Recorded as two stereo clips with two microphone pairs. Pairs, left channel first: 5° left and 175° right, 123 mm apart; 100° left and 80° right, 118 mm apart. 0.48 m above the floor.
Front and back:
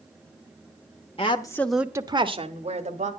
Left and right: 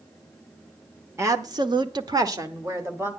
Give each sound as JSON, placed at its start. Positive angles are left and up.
{"t": 1.2, "sound": "a woman speaking", "azimuth_deg": -20, "distance_m": 1.1}